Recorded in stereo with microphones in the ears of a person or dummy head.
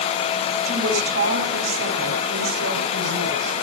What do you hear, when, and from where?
0.7 s a woman speaking: 75° right (ahead or behind), 8.5 m